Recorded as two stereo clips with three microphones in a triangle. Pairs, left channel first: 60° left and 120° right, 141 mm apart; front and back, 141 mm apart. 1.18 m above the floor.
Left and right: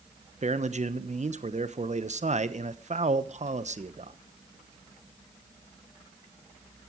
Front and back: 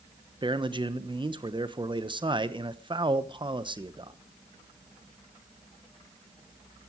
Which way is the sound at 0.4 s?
135° right.